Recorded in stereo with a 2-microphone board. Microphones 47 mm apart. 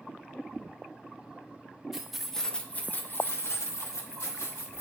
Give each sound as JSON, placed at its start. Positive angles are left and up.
{"t": 1.9, "sound": "keys jangling", "side_deg": -10, "distance_m": 0.9}